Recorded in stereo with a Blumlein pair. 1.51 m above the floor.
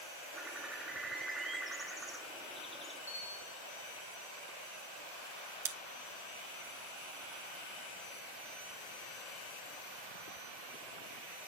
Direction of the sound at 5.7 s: 60° right.